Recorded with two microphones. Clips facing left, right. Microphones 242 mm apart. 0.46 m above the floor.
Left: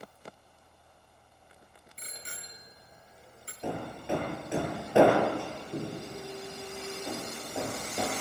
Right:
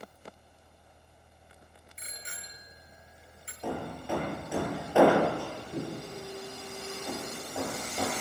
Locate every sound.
2.0 s a bicycle bell: 40° left (ahead or behind), 4.5 m
3.6 s hammering: 20° left (ahead or behind), 7.5 m